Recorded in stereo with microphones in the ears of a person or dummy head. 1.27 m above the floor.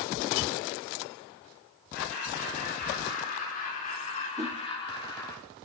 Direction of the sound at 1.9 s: 70° left (ahead or behind).